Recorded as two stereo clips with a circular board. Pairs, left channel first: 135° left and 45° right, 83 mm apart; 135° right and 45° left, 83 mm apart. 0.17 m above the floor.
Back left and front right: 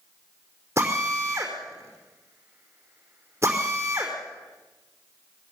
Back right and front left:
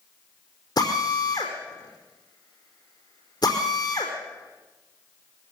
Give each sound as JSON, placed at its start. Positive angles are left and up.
{"t": 0.8, "sound": "a drill", "azimuth_deg": -105, "distance_m": 4.5}